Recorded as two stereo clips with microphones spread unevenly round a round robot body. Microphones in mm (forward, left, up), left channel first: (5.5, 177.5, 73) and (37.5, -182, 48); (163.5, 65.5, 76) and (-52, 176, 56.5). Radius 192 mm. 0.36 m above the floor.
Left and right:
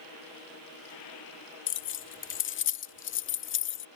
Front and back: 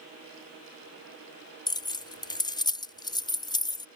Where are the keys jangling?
50° left.